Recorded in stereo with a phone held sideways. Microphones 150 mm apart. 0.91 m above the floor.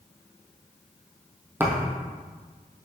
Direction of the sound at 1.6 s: 15° right (ahead or behind).